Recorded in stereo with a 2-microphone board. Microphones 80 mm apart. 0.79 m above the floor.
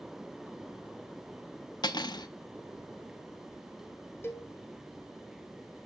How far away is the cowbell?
About 1.0 m.